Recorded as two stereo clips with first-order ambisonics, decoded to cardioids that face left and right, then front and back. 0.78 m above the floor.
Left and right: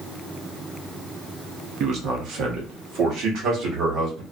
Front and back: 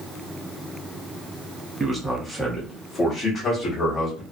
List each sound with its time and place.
1.8 s a man speaking: 110° right, 0.8 m; by 4.2 s 55° right, 1.6 m